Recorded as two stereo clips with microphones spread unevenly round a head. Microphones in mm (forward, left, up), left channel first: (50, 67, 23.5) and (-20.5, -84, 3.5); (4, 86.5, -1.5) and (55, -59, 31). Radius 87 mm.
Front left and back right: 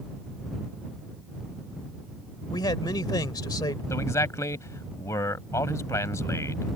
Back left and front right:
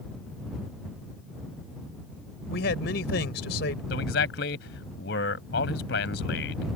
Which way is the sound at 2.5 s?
135° left.